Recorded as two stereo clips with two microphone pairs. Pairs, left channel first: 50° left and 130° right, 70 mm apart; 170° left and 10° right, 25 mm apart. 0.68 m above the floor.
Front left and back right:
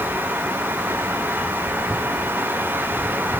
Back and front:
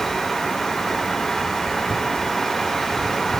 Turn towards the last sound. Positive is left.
No sound to turn to.